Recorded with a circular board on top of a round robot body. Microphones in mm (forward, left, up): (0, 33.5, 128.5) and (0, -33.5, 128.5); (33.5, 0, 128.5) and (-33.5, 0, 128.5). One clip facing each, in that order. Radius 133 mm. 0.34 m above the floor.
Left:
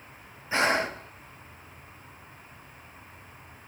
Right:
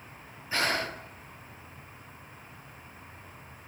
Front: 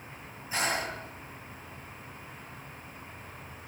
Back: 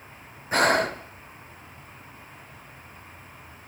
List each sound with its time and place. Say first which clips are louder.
0.5 s breathing: left 5 dB, back 10 dB; 160° left, 1.4 m